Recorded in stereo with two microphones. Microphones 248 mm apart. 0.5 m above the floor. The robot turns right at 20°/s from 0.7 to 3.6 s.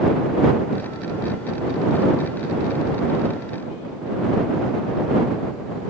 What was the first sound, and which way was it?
Only background noise.